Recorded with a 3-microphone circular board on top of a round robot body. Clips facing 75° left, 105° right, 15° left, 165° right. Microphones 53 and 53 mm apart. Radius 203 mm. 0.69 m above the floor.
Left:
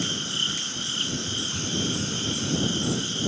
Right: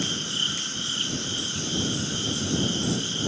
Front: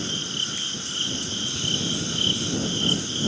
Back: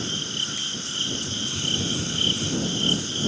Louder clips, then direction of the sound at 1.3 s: Even, even; 125° left.